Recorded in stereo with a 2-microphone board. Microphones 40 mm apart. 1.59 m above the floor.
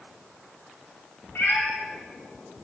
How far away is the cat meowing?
About 3 m.